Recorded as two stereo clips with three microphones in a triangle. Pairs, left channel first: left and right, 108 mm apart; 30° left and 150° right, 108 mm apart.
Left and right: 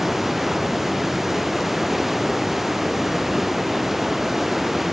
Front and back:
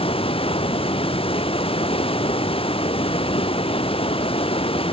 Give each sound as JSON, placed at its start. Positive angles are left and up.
{"t": 0.0, "sound": "running water", "azimuth_deg": 0}